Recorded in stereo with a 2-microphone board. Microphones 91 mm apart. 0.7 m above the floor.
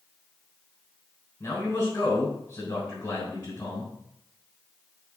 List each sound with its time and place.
1.4 s a man speaking: 20° left (ahead or behind), 4 m